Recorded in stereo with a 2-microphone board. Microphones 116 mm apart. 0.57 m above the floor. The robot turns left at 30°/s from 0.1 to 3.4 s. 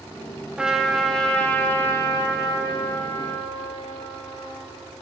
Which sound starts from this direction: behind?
A trumpet, at 0.6 s.